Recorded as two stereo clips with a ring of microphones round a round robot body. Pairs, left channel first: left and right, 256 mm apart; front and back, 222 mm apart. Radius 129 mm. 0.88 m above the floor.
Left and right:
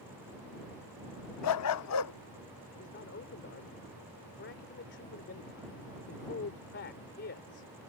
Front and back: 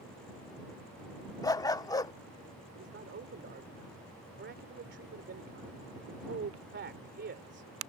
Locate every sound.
1.4 s a dog barking: 75° left
2.8 s a man speaking: 140° left